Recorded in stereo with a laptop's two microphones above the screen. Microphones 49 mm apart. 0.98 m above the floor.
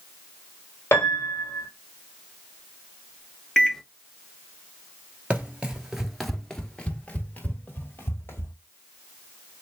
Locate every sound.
0.9 s a piano: 60° left (ahead or behind), 1.3 m
3.6 s a microwave: 10° left (ahead or behind), 0.6 m
5.3 s running footsteps: 30° right (ahead or behind), 1.1 m; by 8.5 s 55° left (ahead or behind), 1.6 m